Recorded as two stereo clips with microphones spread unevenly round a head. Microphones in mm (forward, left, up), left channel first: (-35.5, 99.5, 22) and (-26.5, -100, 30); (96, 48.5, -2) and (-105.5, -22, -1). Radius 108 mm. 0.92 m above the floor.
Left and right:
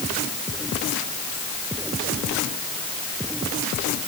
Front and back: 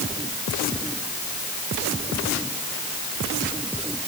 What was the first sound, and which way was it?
Only background noise.